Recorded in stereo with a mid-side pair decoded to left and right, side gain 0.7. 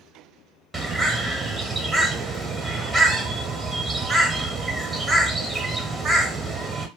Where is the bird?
15° right, 1.0 m.